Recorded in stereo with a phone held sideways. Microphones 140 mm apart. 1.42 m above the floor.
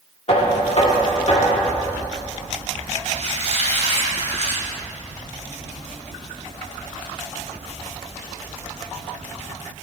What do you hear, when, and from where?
0.3 s knocking: 55° left (ahead or behind), 2 m
3.0 s a squeak: 55° right (ahead or behind), 4 m